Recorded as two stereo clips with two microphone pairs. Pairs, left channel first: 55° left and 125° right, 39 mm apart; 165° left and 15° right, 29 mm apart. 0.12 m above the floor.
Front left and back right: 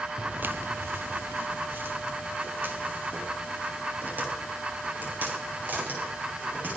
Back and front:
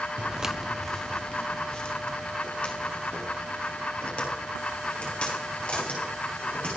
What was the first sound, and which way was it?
Footsteps, 50° right.